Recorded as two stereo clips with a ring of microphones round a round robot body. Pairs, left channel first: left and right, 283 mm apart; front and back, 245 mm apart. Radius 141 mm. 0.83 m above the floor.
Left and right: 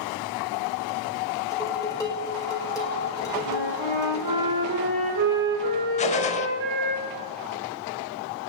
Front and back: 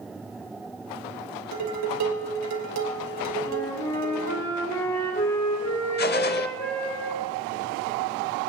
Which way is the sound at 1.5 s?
170° left.